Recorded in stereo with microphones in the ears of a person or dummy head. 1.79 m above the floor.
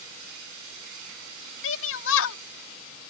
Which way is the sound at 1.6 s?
75° left (ahead or behind).